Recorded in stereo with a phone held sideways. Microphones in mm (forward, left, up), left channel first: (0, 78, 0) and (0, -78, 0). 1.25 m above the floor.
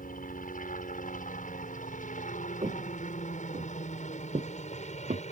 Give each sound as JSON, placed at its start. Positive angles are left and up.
{"t": 0.0, "sound": "a helicopter", "side_deg": 65}
{"t": 2.6, "sound": "footsteps", "side_deg": -40}